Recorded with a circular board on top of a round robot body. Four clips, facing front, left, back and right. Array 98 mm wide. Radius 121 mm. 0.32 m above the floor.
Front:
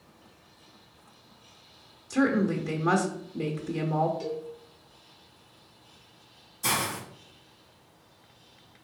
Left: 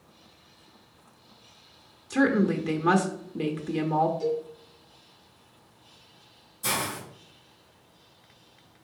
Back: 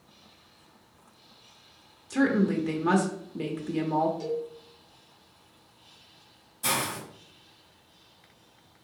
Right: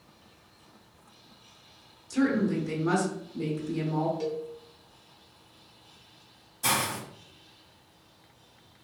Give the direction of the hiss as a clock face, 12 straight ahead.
3 o'clock.